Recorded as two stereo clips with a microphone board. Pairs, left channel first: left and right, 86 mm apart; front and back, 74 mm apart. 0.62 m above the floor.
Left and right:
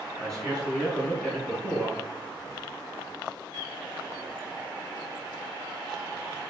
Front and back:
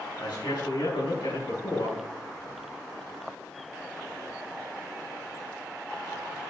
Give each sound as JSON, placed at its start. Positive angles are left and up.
{"t": 0.2, "sound": "a man speaking", "azimuth_deg": 5, "distance_m": 7.0}